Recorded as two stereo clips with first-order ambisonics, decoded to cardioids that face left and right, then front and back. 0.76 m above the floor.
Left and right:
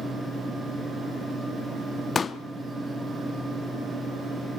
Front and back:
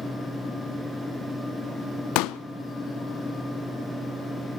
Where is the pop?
20° left, 0.6 m.